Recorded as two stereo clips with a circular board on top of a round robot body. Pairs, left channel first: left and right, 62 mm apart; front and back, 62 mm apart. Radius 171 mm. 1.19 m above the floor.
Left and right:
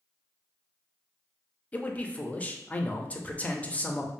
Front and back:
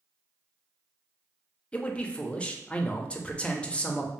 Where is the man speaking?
50° left, 0.7 m.